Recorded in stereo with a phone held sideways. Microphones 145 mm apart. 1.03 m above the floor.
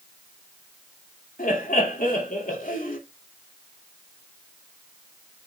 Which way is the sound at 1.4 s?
70° left (ahead or behind).